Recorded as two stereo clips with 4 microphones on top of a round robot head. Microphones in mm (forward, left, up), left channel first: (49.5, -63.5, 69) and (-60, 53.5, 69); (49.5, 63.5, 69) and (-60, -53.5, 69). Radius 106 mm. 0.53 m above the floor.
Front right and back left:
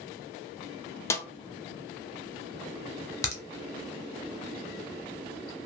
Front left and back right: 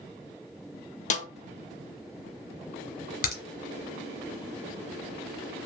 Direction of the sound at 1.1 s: 20° left.